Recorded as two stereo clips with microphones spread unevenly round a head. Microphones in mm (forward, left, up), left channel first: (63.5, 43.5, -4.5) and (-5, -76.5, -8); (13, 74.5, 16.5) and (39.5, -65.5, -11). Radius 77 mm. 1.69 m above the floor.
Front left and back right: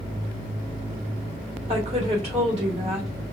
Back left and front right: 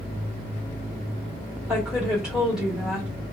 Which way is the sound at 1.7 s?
170° right.